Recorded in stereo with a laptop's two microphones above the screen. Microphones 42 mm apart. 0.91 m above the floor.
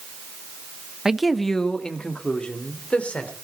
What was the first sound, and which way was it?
A man speaking, 15° right (ahead or behind).